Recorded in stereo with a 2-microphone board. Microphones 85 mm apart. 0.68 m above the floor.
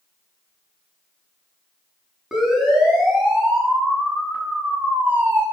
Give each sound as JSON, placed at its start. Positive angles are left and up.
{"t": 2.3, "sound": "a siren", "side_deg": -10, "distance_m": 7.5}